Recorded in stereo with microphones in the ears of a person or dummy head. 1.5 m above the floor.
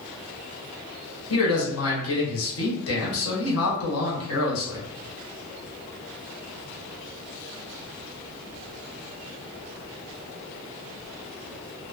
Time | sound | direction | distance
1.3 | a man speaking | 80° left | 1.4 m